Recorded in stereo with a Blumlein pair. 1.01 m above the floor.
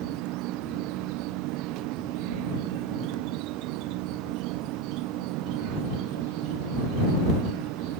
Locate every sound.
0.0 s an insect: 40° right